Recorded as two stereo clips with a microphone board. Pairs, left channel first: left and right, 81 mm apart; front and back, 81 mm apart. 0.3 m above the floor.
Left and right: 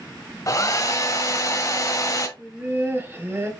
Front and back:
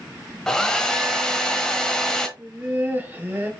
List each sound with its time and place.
0.5 s a hair dryer: 80° left, 1.0 m
2.4 s laughter: 130° right, 1.4 m